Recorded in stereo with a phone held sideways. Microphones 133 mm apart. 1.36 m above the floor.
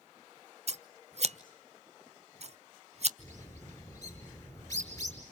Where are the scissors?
50° right (ahead or behind), 0.6 m.